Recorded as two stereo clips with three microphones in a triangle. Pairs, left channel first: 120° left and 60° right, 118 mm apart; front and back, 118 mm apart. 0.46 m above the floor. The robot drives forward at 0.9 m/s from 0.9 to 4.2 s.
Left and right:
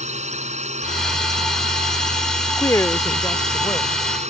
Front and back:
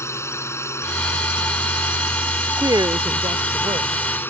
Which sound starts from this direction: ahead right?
A drone, at 0.0 s.